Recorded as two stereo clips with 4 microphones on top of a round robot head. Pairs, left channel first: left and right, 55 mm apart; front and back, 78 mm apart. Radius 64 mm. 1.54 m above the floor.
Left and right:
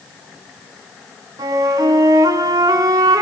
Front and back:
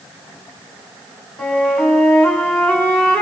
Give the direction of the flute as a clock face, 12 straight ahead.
2 o'clock.